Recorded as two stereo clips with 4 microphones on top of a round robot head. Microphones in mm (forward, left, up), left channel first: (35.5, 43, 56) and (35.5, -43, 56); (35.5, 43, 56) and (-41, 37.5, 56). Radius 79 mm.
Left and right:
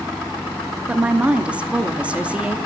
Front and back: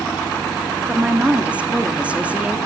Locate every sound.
0.9 s a woman speaking: 140° right, 1.1 m